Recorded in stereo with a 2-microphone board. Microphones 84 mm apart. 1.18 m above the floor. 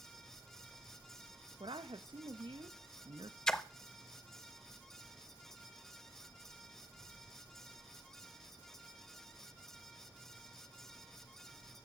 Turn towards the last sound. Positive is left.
turn(degrees=5)  # may be behind; listen again after turning